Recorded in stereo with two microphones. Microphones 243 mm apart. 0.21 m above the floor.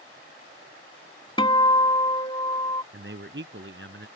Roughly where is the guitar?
Left.